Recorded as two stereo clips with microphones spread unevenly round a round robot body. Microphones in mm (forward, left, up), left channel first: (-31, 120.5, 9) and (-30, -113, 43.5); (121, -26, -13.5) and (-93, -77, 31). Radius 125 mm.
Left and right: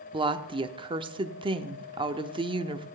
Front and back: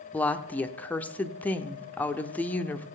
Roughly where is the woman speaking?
Ahead right.